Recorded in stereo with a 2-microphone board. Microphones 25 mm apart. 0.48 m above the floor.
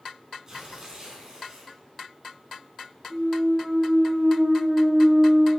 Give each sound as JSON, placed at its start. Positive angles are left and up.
{"t": 0.5, "sound": "tearing paper", "side_deg": -30, "distance_m": 3.5}
{"t": 3.1, "sound": "a clunk", "side_deg": -30, "distance_m": 4.0}